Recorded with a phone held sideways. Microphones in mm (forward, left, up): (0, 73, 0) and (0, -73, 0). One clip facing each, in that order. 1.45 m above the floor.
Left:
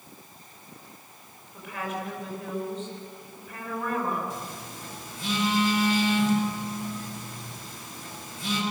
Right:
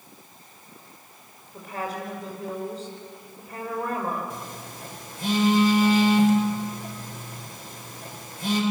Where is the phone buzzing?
60° right (ahead or behind), 6 m.